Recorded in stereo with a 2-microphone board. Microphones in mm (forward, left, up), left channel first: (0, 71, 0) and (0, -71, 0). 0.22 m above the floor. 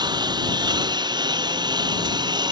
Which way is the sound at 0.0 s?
30° right (ahead or behind).